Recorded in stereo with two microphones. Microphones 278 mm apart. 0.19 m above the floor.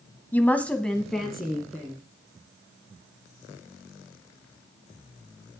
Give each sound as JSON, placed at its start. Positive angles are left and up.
{"t": 0.3, "sound": "a woman speaking", "side_deg": 5, "distance_m": 1.0}